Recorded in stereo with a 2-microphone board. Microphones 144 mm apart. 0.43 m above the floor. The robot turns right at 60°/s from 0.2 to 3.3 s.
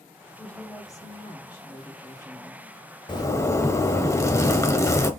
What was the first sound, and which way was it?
A woman speaking, 15° left.